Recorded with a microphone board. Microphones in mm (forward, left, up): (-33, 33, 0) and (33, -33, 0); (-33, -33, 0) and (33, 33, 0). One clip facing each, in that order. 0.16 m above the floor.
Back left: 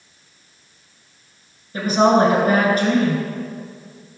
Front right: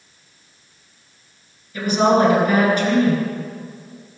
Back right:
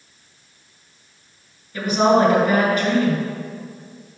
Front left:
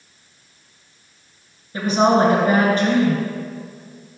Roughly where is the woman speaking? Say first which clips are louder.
Back left 1 dB, even; left.